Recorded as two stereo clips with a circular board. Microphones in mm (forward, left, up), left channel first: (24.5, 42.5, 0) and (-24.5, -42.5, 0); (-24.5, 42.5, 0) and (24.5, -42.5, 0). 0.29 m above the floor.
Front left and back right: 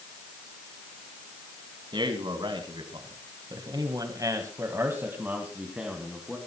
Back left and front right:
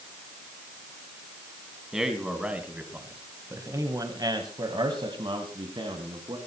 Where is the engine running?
I don't hear an engine running.